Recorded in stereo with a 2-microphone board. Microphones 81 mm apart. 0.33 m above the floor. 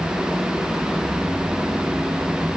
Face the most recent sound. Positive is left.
No sound to turn to.